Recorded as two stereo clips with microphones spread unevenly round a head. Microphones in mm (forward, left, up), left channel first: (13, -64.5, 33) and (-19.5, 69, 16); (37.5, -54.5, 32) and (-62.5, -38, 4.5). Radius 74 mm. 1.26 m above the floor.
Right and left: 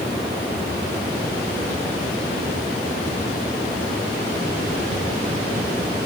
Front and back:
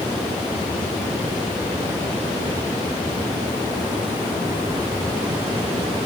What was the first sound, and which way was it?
Only background noise.